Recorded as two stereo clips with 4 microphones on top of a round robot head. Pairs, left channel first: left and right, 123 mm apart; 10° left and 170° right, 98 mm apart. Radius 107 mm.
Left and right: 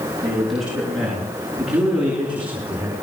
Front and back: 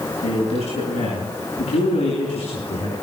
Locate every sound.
0.2 s a man speaking: straight ahead, 8.5 m; by 2.9 s 15° right, 6.5 m